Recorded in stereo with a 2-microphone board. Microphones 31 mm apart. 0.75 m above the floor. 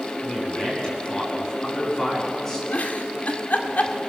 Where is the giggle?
55° left (ahead or behind), 1.9 m.